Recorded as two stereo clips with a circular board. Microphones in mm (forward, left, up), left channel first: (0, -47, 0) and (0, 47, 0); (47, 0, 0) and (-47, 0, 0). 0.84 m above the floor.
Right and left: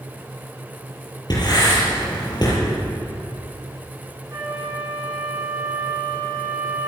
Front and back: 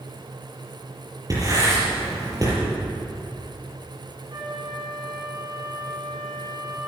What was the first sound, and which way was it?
Writing, 130° right.